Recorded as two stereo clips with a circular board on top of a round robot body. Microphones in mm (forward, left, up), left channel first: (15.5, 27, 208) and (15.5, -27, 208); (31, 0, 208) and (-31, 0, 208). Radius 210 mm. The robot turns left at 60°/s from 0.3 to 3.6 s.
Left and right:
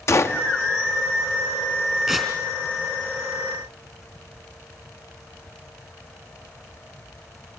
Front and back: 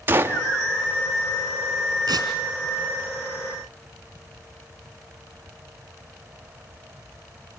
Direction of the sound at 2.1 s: 170° right.